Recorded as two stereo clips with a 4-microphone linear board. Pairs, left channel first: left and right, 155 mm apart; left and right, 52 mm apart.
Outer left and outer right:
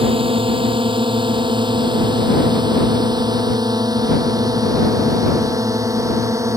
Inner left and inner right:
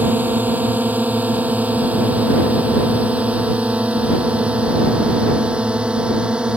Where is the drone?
35° right (ahead or behind); by 6.6 s 20° right (ahead or behind).